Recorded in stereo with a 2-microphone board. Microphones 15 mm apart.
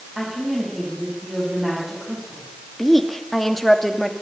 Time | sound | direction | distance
0.1 | a woman speaking | 20° right (ahead or behind) | 7.5 m
2.8 | a woman speaking | 15° left (ahead or behind) | 2.5 m